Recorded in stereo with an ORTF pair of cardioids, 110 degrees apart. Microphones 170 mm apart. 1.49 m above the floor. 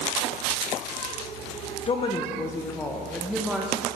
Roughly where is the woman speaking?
Ahead left.